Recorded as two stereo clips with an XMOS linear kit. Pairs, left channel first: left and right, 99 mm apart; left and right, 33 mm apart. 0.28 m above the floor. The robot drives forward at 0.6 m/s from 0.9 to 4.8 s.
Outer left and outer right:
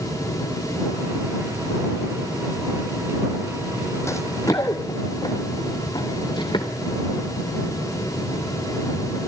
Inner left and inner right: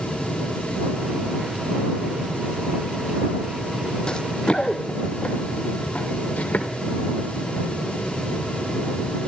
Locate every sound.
4.1 s running footsteps: 30° left (ahead or behind), 0.7 m; by 6.7 s 50° left (ahead or behind), 3 m